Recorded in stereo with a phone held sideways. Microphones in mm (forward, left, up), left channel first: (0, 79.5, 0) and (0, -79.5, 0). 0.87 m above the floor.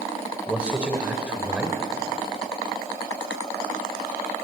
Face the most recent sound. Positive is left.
turn(degrees=-10)  # may be behind; listen again after turning